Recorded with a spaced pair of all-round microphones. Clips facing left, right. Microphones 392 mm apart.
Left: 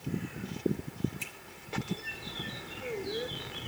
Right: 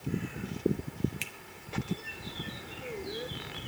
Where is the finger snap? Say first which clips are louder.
Right 1 dB; 85° right, 1.1 m.